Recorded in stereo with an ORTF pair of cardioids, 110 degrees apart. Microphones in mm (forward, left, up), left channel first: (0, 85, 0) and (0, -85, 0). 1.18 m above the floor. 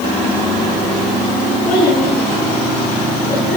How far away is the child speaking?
About 8.5 m.